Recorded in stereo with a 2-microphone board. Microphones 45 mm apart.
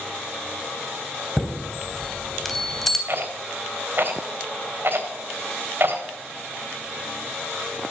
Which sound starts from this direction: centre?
A chime, at 1.4 s.